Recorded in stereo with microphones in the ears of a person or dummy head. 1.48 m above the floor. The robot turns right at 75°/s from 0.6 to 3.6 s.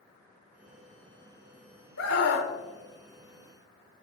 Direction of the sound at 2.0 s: 100° left.